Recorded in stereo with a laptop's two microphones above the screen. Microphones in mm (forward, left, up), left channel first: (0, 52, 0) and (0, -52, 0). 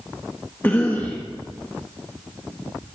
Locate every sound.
0.6 s a cough: 20° left (ahead or behind), 1.1 m